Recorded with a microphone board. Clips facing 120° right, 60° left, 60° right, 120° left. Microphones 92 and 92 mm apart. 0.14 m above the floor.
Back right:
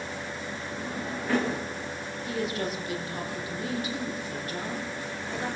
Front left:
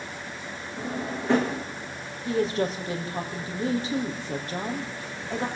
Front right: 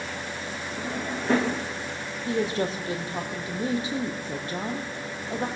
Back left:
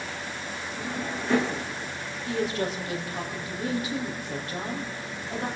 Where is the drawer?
5° right, 7 m.